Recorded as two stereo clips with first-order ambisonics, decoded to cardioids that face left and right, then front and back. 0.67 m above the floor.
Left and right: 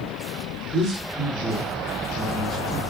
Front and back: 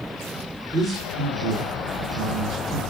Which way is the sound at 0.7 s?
130° right.